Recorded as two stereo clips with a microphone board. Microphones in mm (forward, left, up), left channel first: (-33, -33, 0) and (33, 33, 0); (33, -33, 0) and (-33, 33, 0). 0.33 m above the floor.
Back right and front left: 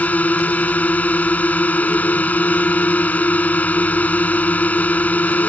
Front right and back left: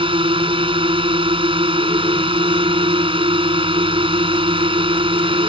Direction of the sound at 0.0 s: 155° left.